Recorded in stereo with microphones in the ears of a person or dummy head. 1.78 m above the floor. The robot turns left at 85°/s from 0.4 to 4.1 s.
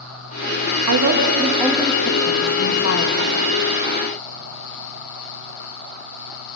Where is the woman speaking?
110° right, 2.5 m; by 3.3 s 45° left, 2.5 m.